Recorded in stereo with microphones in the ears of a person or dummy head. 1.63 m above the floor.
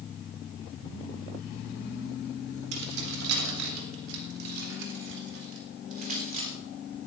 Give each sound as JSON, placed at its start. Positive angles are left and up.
{"t": 2.7, "sound": "keys jangling", "side_deg": -75, "distance_m": 4.0}